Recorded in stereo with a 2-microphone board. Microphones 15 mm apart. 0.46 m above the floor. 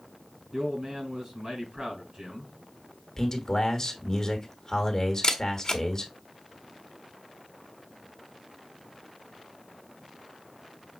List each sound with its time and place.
0.5 s a man speaking: 50° right (ahead or behind), 4 m
3.2 s a man speaking: 35° left (ahead or behind), 1.3 m
5.2 s a camera shutter: 45° left (ahead or behind), 1.1 m